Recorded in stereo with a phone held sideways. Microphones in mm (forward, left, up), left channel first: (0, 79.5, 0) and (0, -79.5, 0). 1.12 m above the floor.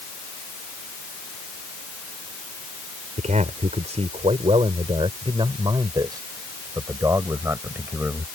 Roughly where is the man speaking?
Right.